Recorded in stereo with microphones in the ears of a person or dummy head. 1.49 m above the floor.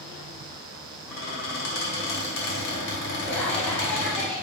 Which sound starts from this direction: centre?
Laughter, at 3.3 s.